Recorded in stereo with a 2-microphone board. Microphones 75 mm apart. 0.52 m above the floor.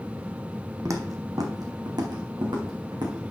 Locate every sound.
0.8 s footsteps: 45° right (ahead or behind), 1.1 m; by 3.3 s 75° right (ahead or behind), 2.5 m